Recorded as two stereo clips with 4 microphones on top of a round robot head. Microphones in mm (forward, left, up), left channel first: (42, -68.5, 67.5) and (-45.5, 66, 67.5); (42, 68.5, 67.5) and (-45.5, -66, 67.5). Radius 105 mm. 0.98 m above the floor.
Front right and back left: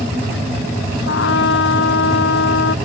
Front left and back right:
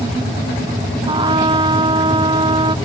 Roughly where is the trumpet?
Ahead right.